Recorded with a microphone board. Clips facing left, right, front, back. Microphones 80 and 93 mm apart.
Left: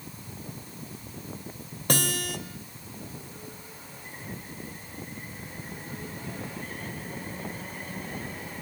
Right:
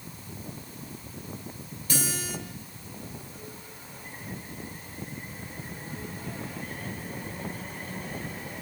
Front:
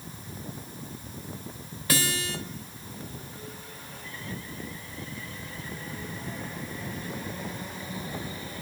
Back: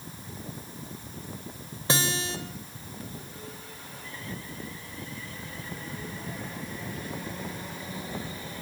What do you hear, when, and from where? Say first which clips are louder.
1.9 s a guitar: left 4 dB, back 1 dB; 115° left, 3 m